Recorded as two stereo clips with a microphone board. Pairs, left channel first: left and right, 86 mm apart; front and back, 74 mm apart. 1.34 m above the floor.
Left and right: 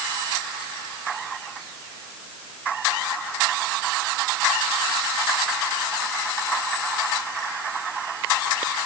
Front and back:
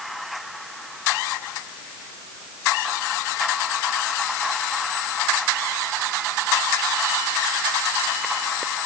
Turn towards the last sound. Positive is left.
No sound to turn to.